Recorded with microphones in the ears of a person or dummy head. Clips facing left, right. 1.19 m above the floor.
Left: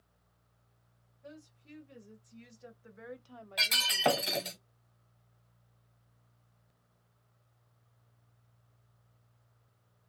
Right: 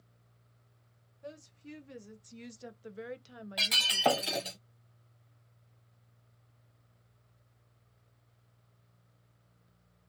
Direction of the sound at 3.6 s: Centre (ahead or behind).